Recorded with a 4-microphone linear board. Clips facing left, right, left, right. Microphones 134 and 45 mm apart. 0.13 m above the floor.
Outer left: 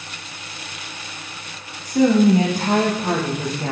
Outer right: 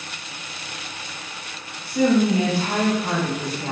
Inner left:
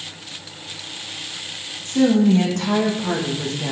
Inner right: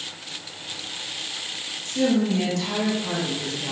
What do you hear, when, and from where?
1.9 s a woman speaking: 40° left (ahead or behind), 9 m; by 3.7 s 45° left (ahead or behind), 9 m